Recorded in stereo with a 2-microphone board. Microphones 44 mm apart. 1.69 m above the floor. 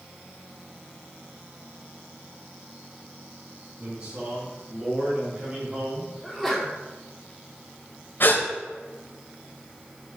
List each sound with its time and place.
3.8 s a man speaking: 40° right (ahead or behind), 4.5 m; by 6.1 s 20° right (ahead or behind), 1.5 m
6.2 s a sneeze: 5° right (ahead or behind), 4 m
8.2 s a gasp: 50° left (ahead or behind), 2 m